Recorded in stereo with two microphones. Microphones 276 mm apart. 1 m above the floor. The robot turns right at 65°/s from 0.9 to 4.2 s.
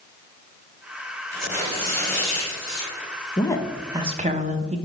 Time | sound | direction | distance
1.3 | tearing paper | 170° left | 3 m
3.4 | a woman speaking | 155° left | 0.8 m